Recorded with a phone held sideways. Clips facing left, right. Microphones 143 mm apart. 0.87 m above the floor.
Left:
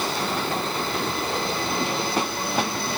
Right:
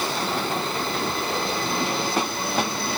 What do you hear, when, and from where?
Only background noise.